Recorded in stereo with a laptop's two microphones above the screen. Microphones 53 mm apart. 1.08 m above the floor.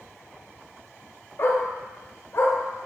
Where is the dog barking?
55° left (ahead or behind), 1.5 m.